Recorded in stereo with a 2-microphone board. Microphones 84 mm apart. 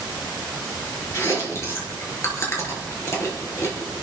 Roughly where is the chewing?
Left.